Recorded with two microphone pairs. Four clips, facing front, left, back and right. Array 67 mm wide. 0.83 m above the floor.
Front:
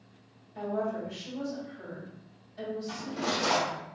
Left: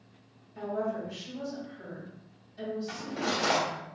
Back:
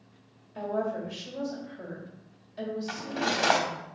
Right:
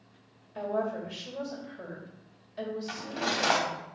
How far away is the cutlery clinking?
About 0.9 m.